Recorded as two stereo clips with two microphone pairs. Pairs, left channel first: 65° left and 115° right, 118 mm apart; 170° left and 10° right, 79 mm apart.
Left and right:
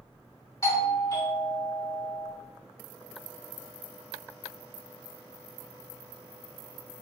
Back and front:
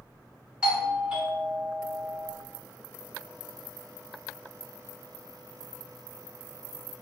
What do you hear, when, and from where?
0.6 s a doorbell: 55° left, 1.3 m